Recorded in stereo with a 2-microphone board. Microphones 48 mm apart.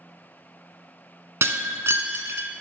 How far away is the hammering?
No hammering in this recording.